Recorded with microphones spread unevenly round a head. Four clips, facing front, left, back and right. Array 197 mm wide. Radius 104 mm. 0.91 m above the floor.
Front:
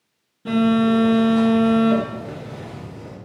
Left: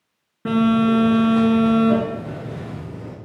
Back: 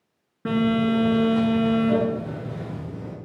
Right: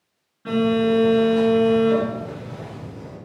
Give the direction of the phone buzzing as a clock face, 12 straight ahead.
7 o'clock.